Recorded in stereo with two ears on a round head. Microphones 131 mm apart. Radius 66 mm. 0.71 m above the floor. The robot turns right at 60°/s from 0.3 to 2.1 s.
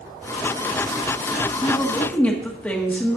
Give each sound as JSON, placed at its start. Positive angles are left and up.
{"t": 1.6, "sound": "a woman speaking", "side_deg": 30, "distance_m": 1.4}